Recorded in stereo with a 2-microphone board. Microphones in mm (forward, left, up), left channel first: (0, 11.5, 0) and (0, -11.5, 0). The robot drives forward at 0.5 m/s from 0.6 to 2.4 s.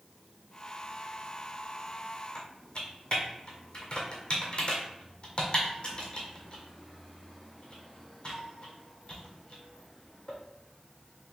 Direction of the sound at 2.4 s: 45° left (ahead or behind).